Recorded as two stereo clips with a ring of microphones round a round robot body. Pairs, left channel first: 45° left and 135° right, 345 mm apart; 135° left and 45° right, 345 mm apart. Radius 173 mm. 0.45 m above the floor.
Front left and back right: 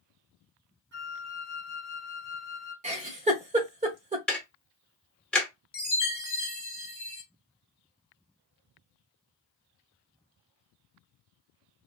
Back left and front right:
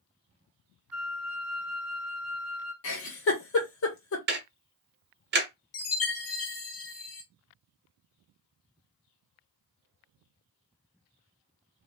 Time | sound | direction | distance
0.9 | a flute | 130° right | 1.1 m
2.8 | a giggle | 165° left | 1.0 m
4.3 | ticking | 40° right | 0.7 m
5.7 | a chime | 100° left | 1.2 m